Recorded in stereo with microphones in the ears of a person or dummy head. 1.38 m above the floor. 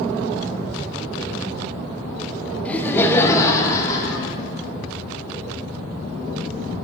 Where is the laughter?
10° left (ahead or behind), 0.6 m; by 4.4 s 20° left (ahead or behind), 1.6 m.